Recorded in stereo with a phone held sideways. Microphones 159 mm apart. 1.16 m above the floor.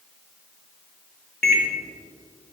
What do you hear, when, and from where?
1.4 s a microwave: 80° left, 0.7 m